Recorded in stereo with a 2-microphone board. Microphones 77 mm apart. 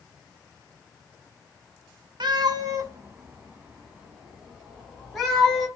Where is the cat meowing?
70° right (ahead or behind), 0.6 m; by 5.7 s 5° left (ahead or behind), 1.8 m.